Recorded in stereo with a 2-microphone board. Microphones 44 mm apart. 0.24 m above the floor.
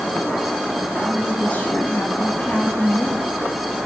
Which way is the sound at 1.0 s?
35° left (ahead or behind).